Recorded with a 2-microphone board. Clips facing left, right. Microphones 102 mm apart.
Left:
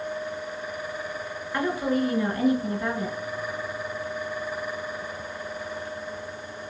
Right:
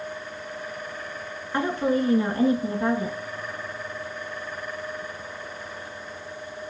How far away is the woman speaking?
About 1.1 m.